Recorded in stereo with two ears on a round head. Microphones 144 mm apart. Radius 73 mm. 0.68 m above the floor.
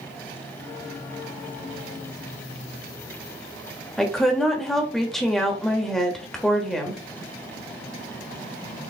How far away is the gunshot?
No gunshot in this recording.